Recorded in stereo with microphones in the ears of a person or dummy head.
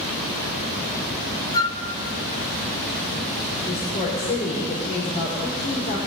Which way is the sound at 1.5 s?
25° left (ahead or behind).